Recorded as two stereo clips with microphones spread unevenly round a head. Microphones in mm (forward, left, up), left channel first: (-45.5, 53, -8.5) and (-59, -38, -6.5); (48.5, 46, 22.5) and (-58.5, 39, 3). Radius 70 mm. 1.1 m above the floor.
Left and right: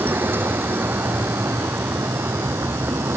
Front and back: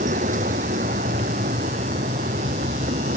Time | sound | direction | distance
0.0 | a vehicle | 165° right | ?